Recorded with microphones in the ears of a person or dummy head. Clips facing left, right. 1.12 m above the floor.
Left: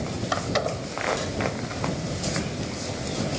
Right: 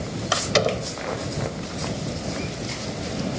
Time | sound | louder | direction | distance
0.3 | a door slam | right 6 dB | 40° right (ahead or behind) | ?